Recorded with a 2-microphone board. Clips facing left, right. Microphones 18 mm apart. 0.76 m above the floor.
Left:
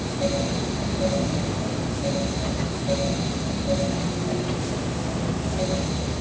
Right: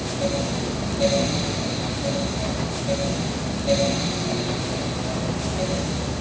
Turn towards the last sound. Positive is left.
No sound to turn to.